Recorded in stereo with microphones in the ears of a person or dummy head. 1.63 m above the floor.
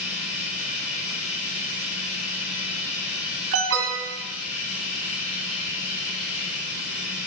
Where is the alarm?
75° right (ahead or behind), 2 m.